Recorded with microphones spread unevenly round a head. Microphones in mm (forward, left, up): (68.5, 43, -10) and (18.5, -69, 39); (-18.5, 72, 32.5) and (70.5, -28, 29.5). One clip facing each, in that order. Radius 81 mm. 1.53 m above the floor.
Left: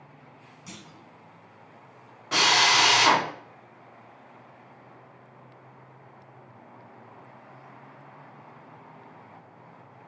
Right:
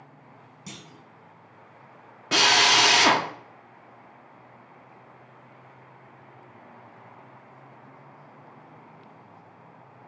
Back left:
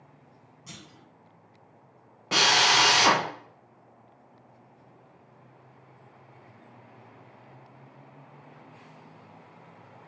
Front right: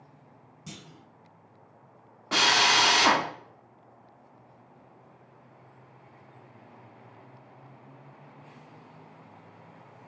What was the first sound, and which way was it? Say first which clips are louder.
A clunk: right 2 dB, front right 3 dB; 105° right.